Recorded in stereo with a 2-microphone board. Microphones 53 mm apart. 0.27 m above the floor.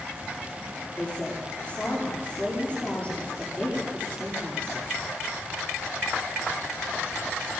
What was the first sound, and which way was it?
A woman speaking, 25° left (ahead or behind).